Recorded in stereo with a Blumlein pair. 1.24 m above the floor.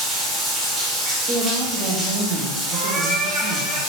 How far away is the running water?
About 1.3 m.